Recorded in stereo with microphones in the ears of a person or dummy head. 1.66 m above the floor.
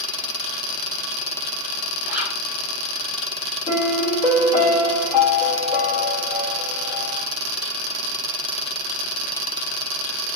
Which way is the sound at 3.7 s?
10° left (ahead or behind).